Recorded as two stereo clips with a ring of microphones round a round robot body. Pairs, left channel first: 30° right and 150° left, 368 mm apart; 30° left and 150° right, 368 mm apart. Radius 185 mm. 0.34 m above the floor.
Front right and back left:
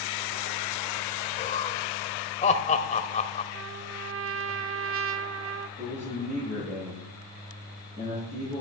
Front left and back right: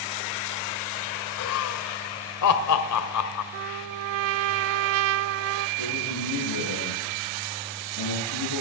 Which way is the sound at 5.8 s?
80° left.